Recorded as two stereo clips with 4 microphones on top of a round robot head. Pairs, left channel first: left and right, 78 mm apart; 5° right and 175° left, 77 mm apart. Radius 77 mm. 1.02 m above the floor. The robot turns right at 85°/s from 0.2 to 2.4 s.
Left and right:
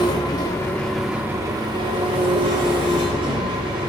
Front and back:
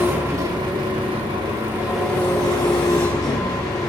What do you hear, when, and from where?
0.0 s an engine running: 115° left, 1.4 m; by 3.9 s 60° right, 1.4 m